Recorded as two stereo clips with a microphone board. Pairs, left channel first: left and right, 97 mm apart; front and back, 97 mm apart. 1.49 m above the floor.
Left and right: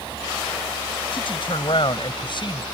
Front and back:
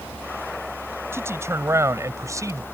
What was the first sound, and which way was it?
A man speaking, 115° left.